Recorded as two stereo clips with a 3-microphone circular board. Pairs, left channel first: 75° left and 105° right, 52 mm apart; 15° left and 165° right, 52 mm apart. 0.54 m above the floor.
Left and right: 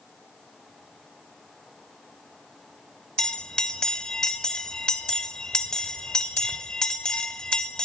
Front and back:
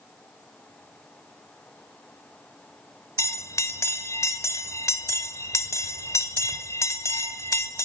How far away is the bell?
About 0.6 m.